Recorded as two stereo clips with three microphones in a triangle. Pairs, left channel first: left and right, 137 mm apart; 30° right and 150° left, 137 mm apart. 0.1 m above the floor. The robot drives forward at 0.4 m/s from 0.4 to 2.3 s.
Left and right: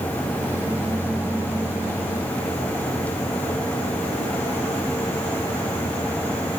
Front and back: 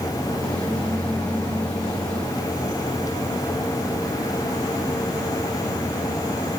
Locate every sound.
Only background noise.